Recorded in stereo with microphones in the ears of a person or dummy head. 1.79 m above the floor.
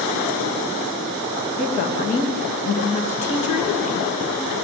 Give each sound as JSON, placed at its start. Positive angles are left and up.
{"t": 1.6, "sound": "a woman speaking", "side_deg": 45, "distance_m": 3.0}